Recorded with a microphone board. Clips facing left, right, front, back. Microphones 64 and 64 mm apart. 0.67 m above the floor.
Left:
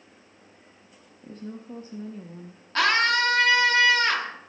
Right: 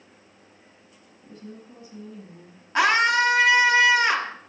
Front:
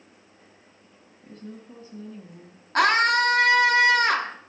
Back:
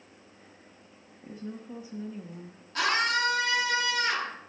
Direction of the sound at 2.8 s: 20° right.